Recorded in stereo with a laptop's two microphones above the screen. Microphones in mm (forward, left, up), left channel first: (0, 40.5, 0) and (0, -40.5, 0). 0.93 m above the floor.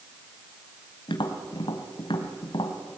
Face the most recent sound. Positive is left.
turn(degrees=75)  # may be behind; listen again after turning